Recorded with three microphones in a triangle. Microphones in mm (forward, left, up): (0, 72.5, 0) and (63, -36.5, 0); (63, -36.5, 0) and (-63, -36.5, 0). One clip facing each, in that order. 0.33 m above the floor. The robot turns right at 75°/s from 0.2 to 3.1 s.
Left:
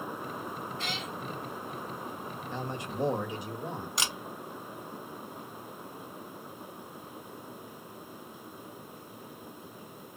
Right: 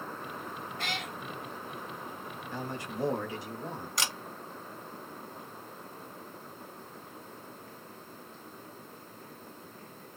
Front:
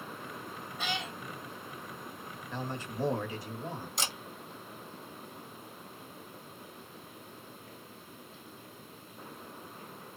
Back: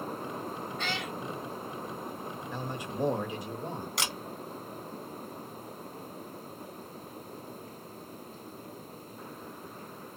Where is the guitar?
I don't hear a guitar.